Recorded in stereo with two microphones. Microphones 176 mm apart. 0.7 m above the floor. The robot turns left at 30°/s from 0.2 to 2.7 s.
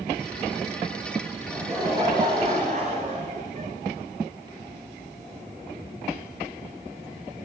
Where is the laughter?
5° right, 8 m; by 3.7 s 45° right, 8 m.